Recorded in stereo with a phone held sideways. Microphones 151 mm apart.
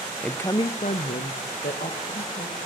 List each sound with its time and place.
0.2 s a woman speaking: 5° left (ahead or behind), 0.7 m; by 2.6 s 80° left, 2.5 m